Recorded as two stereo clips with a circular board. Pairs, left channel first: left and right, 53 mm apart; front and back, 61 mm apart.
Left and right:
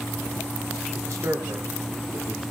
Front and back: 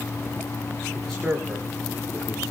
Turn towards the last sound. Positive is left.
turn(degrees=-60)